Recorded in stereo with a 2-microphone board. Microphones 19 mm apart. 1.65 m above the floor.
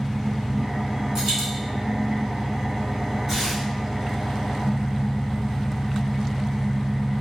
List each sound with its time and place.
0.0 s an engine running: 20° right (ahead or behind), 0.9 m
1.1 s a dropped coin: 30° right (ahead or behind), 1.5 m
3.3 s tearing paper: 30° right (ahead or behind), 1.9 m